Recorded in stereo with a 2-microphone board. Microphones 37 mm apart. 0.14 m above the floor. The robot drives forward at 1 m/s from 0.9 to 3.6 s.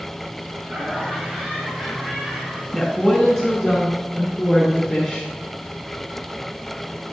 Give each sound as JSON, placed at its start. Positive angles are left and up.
{"t": 0.6, "sound": "laughter", "side_deg": -20, "distance_m": 3.5}
{"t": 2.7, "sound": "a woman speaking", "side_deg": 5, "distance_m": 1.5}